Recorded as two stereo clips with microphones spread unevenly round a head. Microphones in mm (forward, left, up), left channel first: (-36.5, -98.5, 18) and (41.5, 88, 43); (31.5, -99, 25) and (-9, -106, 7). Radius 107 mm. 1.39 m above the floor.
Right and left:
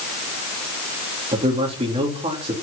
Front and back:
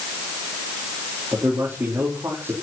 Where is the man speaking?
130° left, 3.5 m.